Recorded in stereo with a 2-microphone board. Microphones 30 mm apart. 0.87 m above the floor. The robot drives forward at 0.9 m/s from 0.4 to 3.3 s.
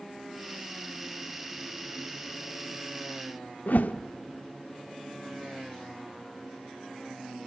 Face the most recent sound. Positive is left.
turn(degrees=75)  # may be behind; listen again after turning